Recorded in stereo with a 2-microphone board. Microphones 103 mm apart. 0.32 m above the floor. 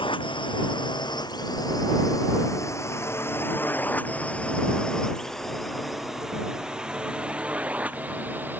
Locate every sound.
0.0 s a drone: 55° left (ahead or behind); by 8.6 s 20° right (ahead or behind)